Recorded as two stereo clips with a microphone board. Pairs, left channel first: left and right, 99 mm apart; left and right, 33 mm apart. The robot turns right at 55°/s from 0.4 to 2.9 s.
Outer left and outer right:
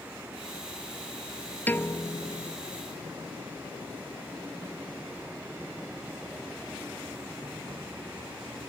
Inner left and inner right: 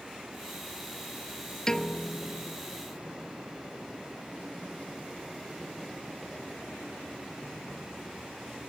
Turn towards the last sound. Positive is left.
turn(degrees=90)